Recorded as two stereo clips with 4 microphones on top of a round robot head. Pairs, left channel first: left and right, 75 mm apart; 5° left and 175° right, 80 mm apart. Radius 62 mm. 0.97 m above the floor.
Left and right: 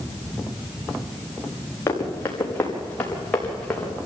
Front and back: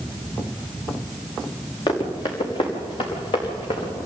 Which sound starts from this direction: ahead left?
Running footsteps, at 1.9 s.